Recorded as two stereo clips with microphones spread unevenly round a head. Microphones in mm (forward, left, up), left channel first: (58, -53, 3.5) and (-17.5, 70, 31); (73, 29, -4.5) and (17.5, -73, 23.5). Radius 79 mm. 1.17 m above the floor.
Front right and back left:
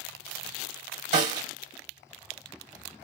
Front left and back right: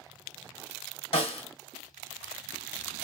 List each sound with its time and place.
1.1 s a snare drum: 85° left, 1.1 m